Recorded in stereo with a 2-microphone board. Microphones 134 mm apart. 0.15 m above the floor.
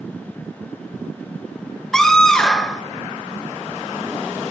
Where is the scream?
5° left (ahead or behind), 2.5 m.